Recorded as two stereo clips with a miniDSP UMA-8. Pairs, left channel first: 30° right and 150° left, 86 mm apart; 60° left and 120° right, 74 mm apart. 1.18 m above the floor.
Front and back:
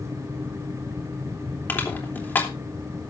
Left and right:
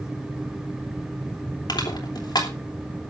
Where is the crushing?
40° left, 3.5 m.